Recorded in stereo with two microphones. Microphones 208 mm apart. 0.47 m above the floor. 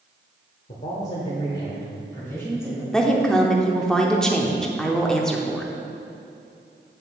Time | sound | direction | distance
0.7 | a man speaking | 45° left (ahead or behind) | 1.1 m
2.9 | a woman speaking | centre (ahead or behind) | 0.8 m